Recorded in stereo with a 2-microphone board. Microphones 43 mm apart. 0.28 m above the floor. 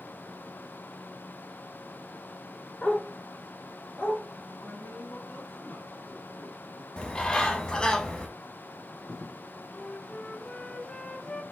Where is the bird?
20° left (ahead or behind), 1.0 m.